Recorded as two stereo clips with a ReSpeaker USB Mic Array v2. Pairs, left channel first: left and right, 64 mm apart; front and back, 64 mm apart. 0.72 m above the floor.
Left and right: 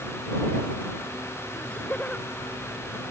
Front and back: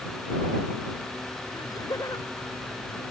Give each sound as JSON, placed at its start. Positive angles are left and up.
{"t": 1.5, "sound": "laughter", "azimuth_deg": 20}